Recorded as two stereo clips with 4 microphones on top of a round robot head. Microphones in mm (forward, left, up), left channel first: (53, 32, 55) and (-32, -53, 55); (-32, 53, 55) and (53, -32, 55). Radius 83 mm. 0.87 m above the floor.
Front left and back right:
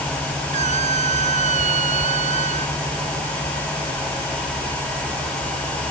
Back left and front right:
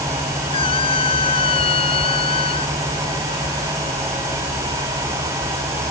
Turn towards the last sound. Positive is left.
turn(degrees=-175)